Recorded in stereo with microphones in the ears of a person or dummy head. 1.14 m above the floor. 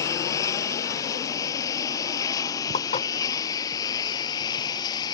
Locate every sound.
0.0 s a lawn mower: 20° left (ahead or behind); by 5.2 s 25° left (ahead or behind)
2.7 s dishes clattering: 40° left (ahead or behind)